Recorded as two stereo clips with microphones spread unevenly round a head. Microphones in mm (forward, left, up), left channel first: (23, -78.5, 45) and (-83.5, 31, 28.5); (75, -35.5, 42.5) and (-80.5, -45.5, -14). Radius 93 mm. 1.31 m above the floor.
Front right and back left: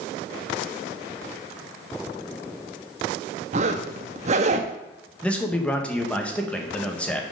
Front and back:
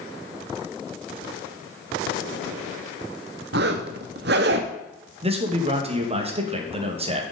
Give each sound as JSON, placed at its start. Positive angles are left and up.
{"t": 3.5, "sound": "a zipper", "azimuth_deg": 160, "distance_m": 0.8}
{"t": 5.2, "sound": "a man speaking", "azimuth_deg": -130, "distance_m": 1.8}